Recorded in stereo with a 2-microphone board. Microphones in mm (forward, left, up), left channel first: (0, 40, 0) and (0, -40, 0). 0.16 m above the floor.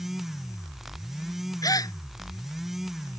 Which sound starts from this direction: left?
A gasp, at 1.6 s.